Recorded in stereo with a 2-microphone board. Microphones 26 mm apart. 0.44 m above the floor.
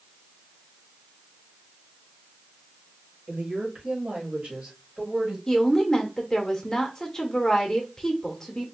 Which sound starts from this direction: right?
A woman speaking, at 3.3 s.